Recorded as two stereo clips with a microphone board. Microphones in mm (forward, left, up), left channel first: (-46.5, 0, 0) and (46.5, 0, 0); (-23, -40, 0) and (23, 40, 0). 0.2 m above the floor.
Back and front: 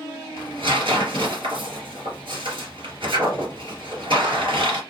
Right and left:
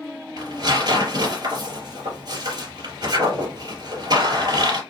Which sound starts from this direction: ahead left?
Tearing paper, at 0.4 s.